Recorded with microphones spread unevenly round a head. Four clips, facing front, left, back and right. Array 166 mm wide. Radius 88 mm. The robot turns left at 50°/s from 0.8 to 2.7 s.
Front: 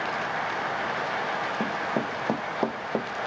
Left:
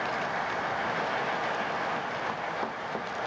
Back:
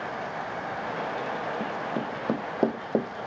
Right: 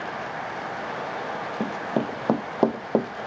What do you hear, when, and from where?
1.6 s running footsteps: 70° right; by 3.3 s 110° right